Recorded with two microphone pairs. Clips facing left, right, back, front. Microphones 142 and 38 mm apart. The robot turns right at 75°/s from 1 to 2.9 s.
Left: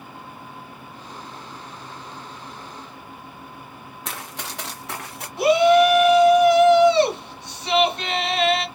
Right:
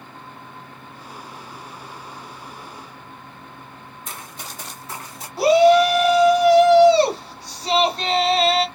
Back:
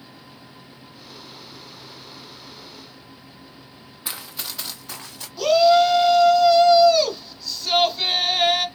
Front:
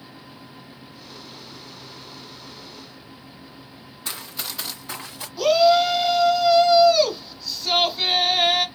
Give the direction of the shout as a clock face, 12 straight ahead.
3 o'clock.